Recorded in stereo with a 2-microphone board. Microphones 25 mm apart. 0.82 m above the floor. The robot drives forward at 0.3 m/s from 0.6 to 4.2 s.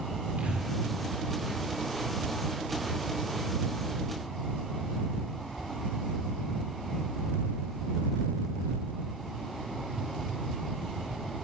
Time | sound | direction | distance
0.4 | breathing | 70° right (ahead or behind) | 9.5 m